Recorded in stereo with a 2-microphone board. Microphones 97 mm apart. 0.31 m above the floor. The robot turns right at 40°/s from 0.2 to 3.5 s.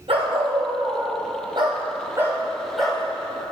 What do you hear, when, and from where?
0.1 s a dog barking: 105° right, 2 m; by 3.0 s 10° left, 2 m